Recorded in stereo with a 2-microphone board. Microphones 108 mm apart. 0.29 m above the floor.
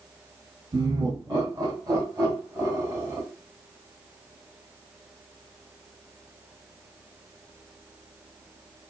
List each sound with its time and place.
0.7 s laughter: 40° right (ahead or behind), 3 m; by 3.2 s 20° right (ahead or behind), 1.7 m